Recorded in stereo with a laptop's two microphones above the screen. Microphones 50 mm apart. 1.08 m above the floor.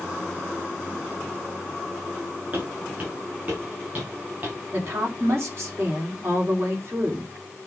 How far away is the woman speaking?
About 3.5 m.